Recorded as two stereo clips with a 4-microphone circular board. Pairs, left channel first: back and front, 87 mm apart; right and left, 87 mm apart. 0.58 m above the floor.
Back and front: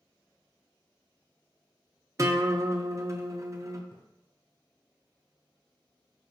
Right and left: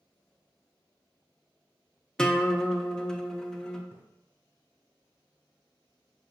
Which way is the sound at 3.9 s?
150° left.